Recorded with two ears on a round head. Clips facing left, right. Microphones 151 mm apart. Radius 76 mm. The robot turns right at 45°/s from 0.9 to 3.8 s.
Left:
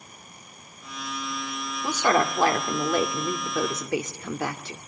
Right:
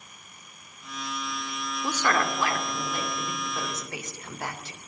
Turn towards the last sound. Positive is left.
turn(degrees=95)